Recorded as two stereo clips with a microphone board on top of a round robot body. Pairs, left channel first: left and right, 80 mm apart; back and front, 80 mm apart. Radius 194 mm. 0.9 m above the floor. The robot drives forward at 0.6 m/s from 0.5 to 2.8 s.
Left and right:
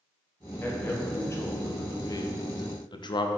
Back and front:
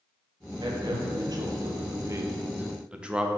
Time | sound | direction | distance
0.6 | a man speaking | 25° left | 1.7 m